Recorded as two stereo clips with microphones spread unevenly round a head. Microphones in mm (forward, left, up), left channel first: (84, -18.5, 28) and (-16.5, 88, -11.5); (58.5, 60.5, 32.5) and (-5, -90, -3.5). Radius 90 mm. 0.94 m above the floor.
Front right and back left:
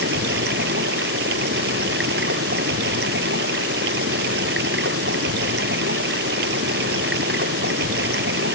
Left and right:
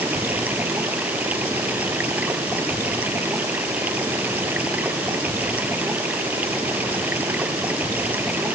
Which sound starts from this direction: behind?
Running water, at 0.0 s.